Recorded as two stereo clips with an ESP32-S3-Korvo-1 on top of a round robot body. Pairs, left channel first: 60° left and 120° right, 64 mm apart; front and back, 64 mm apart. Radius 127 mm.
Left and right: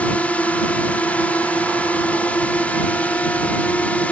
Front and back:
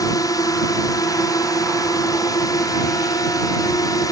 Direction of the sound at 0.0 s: 5° right.